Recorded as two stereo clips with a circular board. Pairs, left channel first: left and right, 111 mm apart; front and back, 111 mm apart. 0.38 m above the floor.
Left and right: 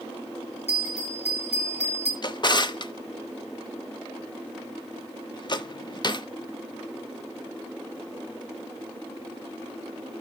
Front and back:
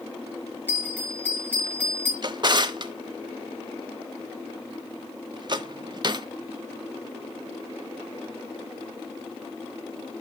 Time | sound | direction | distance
0.7 | a bell | 75° left | 3.5 m
2.2 | a drawer | 135° left | 0.7 m